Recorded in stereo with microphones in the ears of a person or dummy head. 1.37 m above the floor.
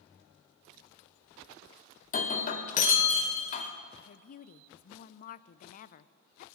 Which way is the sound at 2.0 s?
45° left (ahead or behind).